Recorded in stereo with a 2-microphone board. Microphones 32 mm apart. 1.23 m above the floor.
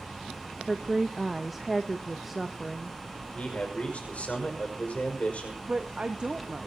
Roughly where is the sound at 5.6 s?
Right.